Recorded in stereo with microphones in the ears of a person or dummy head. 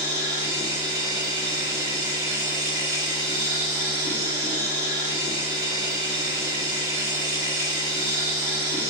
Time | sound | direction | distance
0.0 | a machine running | 25° right (ahead or behind) | 1.8 m